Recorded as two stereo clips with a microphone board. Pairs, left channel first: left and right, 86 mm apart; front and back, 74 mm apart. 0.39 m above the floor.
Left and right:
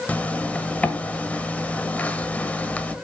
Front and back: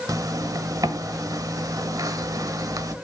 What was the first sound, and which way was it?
A zipper, 160° left.